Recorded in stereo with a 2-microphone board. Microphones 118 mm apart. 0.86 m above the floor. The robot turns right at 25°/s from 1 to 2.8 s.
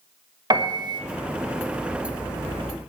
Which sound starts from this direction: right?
A piano, at 0.5 s.